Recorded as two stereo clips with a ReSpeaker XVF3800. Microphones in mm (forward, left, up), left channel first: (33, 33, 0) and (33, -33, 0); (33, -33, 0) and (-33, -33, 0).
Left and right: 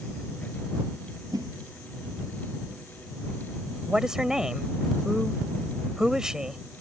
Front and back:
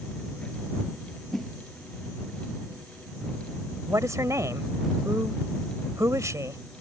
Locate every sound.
1.3 s a whoosh: 90° right
3.9 s a woman speaking: 165° right